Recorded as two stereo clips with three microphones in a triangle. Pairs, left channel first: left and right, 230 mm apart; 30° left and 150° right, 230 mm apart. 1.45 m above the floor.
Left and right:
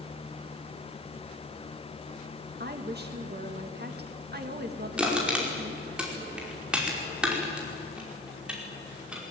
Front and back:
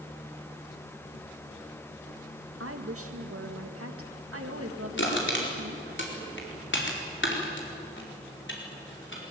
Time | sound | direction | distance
2.6 | a woman speaking | 135° right | 2.5 m
5.0 | crushing | 5° right | 5 m